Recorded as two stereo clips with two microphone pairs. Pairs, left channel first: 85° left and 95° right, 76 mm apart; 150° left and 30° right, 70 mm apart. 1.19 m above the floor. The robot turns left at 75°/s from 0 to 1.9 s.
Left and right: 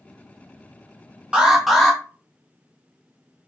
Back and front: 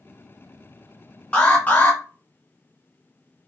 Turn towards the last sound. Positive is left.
turn(degrees=160)